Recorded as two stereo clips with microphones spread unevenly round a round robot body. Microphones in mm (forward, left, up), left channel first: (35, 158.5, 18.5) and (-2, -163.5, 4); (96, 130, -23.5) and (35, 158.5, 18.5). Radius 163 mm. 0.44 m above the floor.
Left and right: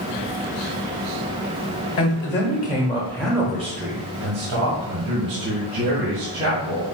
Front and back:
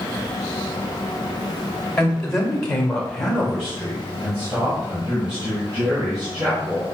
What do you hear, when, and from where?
2.0 s a man speaking: 35° left, 1.7 m; by 6.8 s 110° right, 3 m